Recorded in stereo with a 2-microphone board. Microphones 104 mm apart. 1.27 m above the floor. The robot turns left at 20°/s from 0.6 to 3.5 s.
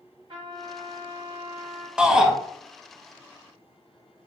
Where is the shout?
5° right (ahead or behind), 0.5 m; by 2.3 s centre (ahead or behind), 0.5 m.